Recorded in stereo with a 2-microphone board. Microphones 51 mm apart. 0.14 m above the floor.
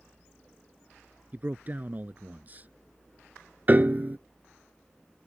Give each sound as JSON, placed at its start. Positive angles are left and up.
{"t": 1.3, "sound": "a man speaking", "side_deg": -35}
{"t": 3.7, "sound": "a piano", "side_deg": -35}